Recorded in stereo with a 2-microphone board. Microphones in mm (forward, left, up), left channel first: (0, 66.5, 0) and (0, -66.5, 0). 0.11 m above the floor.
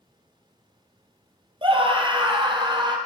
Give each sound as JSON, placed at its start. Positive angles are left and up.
{"t": 1.6, "sound": "a scream", "side_deg": -40, "distance_m": 3.0}